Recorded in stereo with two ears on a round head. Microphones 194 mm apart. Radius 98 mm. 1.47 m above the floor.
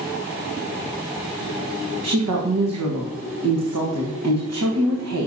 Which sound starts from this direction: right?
A woman speaking, at 2.0 s.